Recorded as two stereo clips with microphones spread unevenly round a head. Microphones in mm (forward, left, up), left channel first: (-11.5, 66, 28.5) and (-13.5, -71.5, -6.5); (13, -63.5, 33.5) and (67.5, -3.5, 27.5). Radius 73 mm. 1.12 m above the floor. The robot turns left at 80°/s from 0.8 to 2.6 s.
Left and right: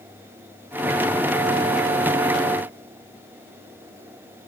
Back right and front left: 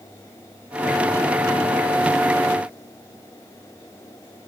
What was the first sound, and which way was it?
Only background noise.